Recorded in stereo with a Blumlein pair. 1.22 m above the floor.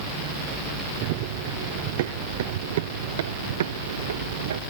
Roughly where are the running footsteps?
Ahead right.